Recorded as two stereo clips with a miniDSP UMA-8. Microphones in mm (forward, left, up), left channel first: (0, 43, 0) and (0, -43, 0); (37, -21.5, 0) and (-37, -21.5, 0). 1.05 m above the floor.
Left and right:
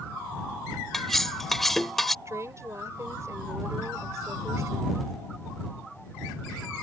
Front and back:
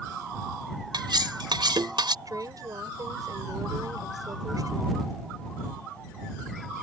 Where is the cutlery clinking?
175° left.